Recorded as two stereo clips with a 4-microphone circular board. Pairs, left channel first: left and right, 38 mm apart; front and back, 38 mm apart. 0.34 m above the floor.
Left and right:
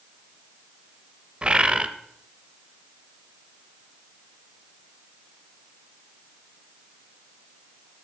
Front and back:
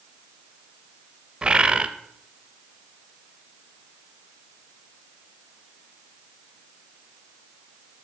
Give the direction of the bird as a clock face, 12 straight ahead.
4 o'clock.